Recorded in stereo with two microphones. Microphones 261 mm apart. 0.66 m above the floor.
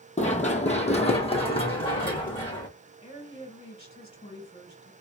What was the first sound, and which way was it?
Running footsteps, 25° left (ahead or behind).